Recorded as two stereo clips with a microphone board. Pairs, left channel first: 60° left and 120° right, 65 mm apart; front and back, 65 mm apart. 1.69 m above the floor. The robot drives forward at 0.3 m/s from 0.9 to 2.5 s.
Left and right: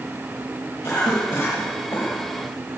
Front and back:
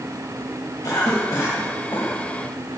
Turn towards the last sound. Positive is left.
turn(degrees=45)